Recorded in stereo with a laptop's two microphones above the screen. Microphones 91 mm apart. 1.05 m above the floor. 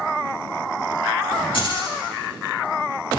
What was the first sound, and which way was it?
Keys jangling, 75° left (ahead or behind).